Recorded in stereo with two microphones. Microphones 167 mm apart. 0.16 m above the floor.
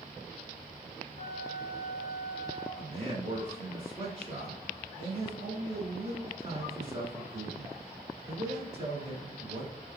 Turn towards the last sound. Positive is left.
turn(degrees=-40)  # may be behind; listen again after turning